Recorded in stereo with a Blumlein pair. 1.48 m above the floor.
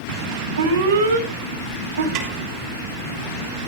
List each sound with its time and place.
0.6 s an alarm: 65° right, 5.5 m
2.1 s a snare drum: 40° right, 5.5 m